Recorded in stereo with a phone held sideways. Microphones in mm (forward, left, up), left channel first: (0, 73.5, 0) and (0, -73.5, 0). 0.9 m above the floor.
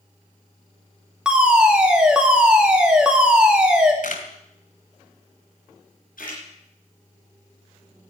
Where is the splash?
85° left, 6.5 m.